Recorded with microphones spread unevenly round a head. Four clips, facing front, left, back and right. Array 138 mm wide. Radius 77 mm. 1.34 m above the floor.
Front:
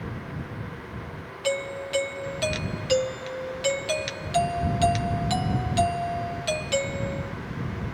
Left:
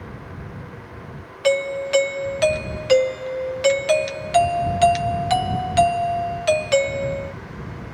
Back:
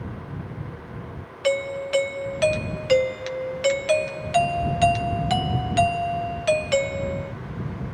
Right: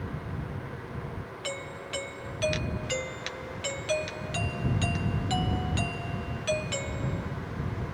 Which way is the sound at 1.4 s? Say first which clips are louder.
Left 20 dB, back 5 dB; 105° left.